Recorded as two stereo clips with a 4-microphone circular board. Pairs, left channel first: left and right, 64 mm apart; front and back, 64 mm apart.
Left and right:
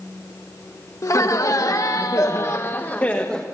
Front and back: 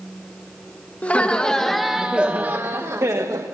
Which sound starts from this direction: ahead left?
Laughter, at 1.0 s.